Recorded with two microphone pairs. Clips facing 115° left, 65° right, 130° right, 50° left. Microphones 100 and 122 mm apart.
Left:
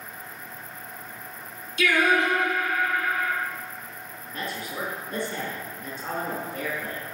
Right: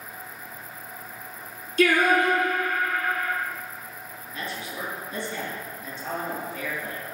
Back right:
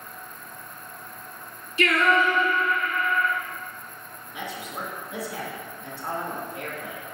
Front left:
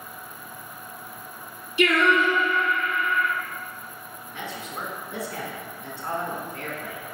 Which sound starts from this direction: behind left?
A man speaking, at 4.3 s.